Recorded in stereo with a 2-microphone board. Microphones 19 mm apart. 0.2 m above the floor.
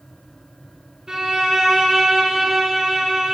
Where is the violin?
40° right (ahead or behind), 2 m.